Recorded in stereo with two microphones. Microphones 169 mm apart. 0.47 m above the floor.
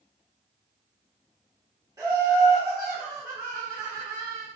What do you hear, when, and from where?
2.0 s laughter: 20° right (ahead or behind), 0.9 m